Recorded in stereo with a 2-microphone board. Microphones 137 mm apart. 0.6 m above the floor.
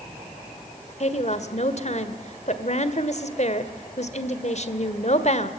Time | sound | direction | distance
1.0 | a woman speaking | 55° left (ahead or behind) | 1.7 m